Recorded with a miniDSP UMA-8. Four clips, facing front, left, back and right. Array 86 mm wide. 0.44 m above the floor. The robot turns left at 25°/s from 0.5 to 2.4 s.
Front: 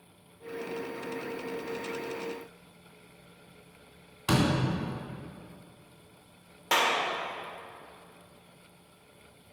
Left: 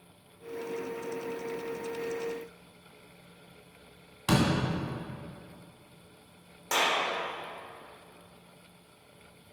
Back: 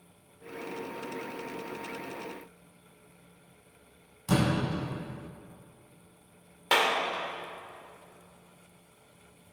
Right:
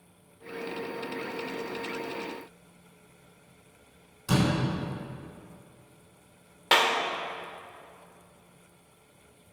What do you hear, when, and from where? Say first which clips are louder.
4.3 s a door slam: even, front 1 dB; 50° left, 3 m
6.7 s a clap: right 4 dB, back 1 dB; 110° right, 1.0 m